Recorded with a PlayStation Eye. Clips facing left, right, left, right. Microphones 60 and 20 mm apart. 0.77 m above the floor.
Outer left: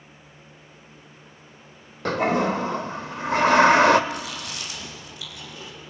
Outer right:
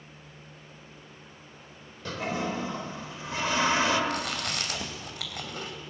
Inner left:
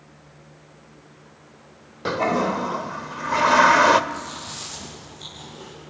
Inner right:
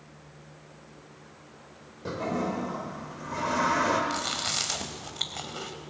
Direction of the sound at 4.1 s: 65° right (ahead or behind).